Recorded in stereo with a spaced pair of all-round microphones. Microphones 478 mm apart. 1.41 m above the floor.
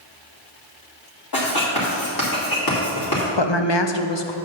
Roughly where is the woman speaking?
Left.